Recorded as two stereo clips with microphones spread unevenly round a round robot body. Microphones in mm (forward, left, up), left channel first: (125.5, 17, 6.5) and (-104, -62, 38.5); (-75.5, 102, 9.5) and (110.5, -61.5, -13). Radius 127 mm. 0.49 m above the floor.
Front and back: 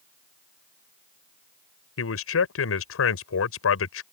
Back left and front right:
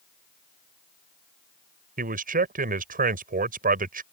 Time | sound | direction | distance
2.0 | a man speaking | 10° left | ?